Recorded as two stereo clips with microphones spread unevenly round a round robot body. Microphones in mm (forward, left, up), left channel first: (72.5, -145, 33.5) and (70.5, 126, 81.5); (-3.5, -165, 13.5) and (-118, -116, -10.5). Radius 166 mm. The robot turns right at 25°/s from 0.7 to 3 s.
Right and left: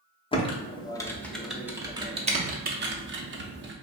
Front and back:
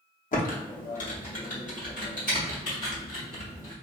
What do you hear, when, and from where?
0.3 s typing on a keyboard: 20° right, 0.7 m; by 3.7 s 35° left, 0.7 m